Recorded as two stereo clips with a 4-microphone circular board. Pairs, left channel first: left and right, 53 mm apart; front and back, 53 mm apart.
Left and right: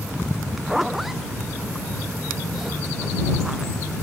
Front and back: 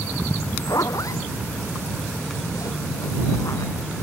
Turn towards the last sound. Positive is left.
turn(degrees=-5)